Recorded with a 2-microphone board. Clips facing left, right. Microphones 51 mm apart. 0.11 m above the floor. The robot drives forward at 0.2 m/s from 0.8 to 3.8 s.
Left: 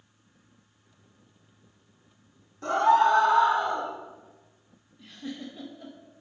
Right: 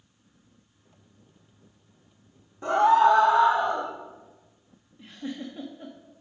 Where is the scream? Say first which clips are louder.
Right 2 dB; 15° right (ahead or behind), 5 m.